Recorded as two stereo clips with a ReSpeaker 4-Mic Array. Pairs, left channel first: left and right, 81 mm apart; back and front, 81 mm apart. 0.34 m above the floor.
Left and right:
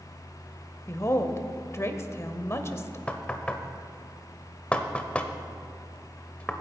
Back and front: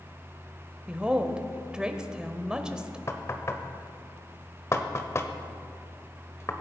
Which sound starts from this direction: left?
A woman speaking, at 0.9 s.